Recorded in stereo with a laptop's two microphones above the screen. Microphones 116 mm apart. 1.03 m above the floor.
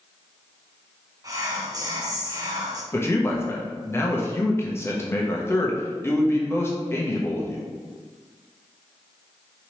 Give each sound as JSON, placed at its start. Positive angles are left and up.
{"t": 1.2, "sound": "whispering", "side_deg": -30, "distance_m": 1.0}
{"t": 2.9, "sound": "a man speaking", "side_deg": 20, "distance_m": 0.8}